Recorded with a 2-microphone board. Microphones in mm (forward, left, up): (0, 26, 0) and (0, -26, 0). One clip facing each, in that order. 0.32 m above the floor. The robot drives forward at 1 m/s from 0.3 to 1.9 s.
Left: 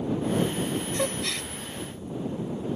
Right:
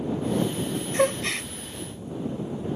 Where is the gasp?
35° right (ahead or behind).